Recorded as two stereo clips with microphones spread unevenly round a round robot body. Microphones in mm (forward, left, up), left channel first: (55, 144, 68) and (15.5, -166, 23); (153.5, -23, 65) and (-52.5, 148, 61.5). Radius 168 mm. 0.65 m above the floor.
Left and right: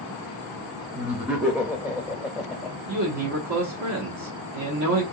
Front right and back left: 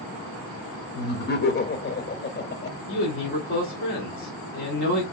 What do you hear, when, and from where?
0.9 s laughter: 25° right, 0.8 m
2.9 s a man speaking: 80° right, 1.1 m